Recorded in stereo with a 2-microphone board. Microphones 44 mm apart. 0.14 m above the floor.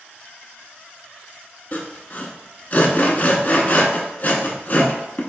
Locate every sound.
1.7 s sawing: 40° left (ahead or behind), 0.6 m